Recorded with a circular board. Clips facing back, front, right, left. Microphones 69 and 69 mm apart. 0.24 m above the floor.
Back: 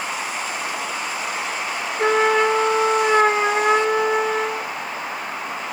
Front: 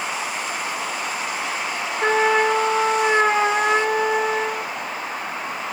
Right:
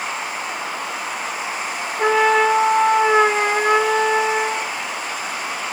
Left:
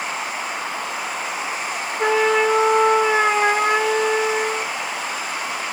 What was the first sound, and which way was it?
A trumpet, 135° right.